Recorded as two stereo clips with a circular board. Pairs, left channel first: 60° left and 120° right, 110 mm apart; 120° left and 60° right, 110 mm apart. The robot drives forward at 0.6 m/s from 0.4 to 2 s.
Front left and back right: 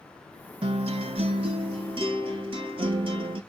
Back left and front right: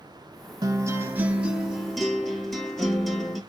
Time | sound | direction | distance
0.6 | a guitar | 105° right | 0.6 m